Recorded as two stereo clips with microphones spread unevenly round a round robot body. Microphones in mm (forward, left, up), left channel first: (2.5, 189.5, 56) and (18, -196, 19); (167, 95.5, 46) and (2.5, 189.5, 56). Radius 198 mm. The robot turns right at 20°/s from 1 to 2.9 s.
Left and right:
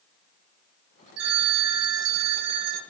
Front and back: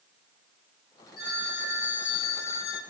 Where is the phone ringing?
90° right, 3 m; by 2.8 s 60° right, 3 m.